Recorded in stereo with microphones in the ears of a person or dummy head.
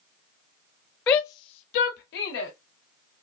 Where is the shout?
25° left (ahead or behind), 0.6 m; by 2.5 s 85° left, 1.1 m.